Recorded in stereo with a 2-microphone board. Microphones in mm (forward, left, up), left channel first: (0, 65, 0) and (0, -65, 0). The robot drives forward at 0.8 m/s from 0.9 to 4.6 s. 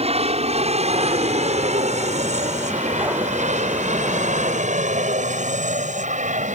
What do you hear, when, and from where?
0.0 s an aircraft: 50° right (ahead or behind); by 6.5 s 60° right (ahead or behind)